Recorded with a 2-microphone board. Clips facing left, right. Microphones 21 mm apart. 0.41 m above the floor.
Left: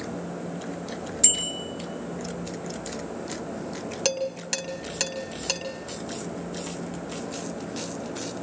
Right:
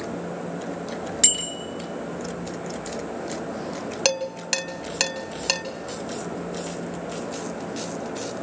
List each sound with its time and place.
1.2 s a bicycle bell: 50° right (ahead or behind), 4 m
4.0 s dishes clattering: 25° right (ahead or behind), 1.8 m